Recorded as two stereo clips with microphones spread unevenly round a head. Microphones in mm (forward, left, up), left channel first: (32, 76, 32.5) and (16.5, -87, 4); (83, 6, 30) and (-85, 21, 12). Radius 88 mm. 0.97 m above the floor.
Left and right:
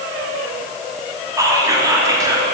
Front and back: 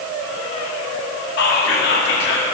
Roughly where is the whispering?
Ahead right.